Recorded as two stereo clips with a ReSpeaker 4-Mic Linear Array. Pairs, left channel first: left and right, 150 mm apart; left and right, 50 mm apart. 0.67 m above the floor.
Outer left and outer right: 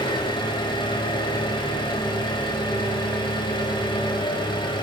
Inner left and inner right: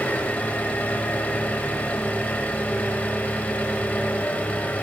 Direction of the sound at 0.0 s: 30° left (ahead or behind).